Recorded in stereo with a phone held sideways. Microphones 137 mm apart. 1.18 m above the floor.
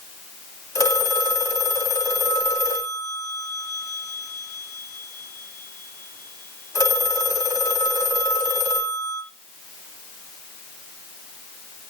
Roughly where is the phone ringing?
Left.